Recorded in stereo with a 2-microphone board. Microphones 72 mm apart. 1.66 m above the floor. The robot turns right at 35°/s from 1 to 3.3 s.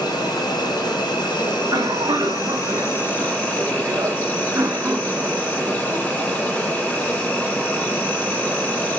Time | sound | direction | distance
0.0 | an insect | 75° left | 0.9 m
1.5 | a cough | 105° right | 0.5 m